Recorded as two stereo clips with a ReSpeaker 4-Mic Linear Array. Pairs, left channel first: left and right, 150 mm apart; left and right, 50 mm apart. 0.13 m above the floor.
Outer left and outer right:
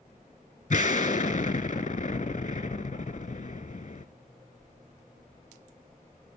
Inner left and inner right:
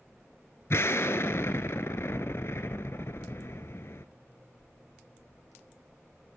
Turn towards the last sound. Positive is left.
turn(degrees=60)  # may be behind; listen again after turning